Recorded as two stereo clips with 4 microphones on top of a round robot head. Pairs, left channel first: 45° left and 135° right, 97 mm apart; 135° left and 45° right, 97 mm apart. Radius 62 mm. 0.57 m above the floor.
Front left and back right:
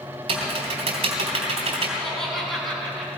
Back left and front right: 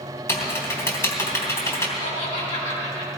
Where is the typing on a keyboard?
165° right, 3 m.